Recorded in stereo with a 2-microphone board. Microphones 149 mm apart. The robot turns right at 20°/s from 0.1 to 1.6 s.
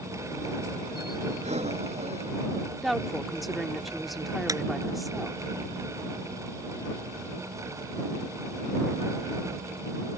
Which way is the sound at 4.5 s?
25° right (ahead or behind).